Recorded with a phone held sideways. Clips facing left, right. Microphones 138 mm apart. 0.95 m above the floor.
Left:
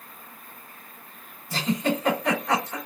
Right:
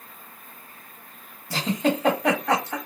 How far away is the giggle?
About 1.8 m.